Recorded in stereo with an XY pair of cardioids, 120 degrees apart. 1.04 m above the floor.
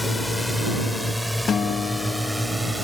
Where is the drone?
10° left; by 2.8 s 10° right.